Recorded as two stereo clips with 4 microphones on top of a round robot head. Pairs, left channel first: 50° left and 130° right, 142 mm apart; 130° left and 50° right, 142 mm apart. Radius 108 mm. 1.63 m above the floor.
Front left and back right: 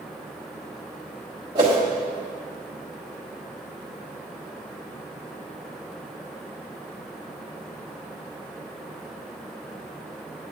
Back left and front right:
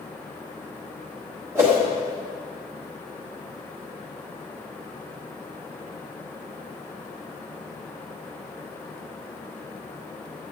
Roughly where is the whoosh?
Right.